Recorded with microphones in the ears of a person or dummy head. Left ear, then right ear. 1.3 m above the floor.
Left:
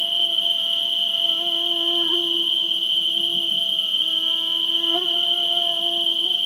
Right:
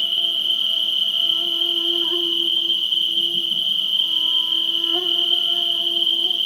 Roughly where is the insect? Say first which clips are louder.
Even; centre.